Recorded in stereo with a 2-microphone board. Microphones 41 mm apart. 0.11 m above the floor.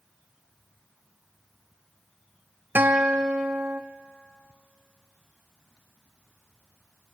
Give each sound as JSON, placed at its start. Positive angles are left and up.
{"t": 2.8, "sound": "a guitar", "side_deg": -60, "distance_m": 1.3}